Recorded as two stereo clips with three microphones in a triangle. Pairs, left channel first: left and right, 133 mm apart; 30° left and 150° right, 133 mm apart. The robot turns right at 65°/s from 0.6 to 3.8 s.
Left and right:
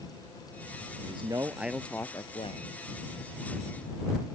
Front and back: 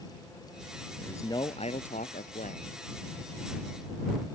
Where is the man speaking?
50° right; by 2.7 s 60° left.